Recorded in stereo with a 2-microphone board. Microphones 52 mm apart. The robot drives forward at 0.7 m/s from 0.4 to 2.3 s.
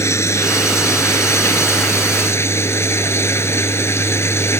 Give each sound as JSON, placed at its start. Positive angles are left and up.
{"t": 0.0, "sound": "running water", "side_deg": 65}